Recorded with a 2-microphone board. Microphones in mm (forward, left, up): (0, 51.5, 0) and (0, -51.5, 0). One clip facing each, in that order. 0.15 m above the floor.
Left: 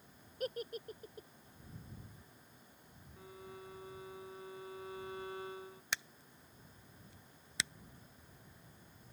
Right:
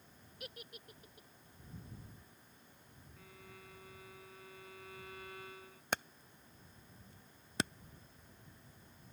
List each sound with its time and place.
0.4 s a giggle: 45° left (ahead or behind)
3.2 s a violin: 30° left (ahead or behind)
5.9 s hammering: 55° right (ahead or behind)